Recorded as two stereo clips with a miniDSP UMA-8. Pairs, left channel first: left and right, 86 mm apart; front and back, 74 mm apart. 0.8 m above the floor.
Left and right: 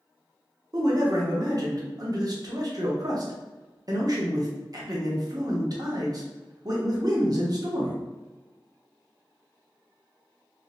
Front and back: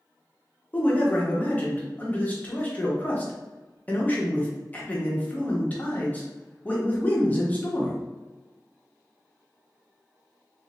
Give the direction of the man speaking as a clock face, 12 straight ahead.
2 o'clock.